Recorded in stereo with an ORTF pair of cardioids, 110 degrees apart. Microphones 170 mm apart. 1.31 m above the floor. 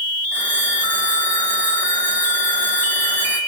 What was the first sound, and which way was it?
A phone ringing, 10° left.